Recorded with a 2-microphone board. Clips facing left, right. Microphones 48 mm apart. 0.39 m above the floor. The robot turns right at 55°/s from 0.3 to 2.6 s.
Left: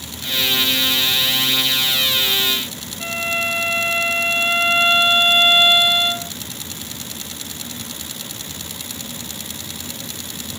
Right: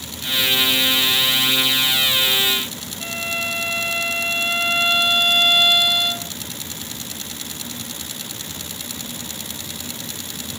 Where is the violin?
20° left (ahead or behind).